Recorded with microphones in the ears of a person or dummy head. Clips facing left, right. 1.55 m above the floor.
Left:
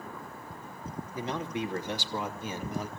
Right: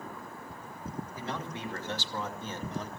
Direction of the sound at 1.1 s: 20° left (ahead or behind).